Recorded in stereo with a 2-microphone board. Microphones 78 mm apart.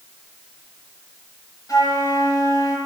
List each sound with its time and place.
1.7 s a flute: 55° left (ahead or behind), 8 m